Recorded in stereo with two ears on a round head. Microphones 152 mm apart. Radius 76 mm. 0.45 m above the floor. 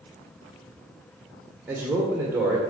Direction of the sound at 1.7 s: 10° right (ahead or behind).